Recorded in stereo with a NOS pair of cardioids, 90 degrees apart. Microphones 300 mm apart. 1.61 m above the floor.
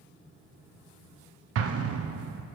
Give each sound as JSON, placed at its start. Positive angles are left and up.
{"t": 1.6, "sound": "an explosion", "azimuth_deg": -55, "distance_m": 0.7}